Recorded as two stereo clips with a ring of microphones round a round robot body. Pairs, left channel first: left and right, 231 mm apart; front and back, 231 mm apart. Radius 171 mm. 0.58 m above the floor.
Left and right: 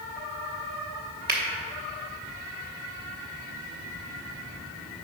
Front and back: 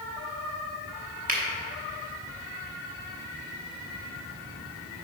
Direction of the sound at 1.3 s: 130° right.